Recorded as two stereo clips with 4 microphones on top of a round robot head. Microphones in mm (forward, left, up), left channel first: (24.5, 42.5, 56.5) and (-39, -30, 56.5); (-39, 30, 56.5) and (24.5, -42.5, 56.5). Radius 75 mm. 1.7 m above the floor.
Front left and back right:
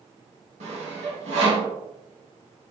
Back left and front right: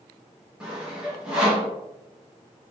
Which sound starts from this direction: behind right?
Sawing, at 0.6 s.